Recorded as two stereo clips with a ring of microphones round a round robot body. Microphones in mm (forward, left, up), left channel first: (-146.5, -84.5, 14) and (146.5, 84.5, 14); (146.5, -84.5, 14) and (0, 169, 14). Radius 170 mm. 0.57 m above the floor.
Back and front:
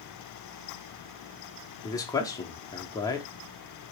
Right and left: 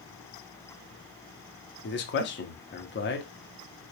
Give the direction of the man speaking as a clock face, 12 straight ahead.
3 o'clock.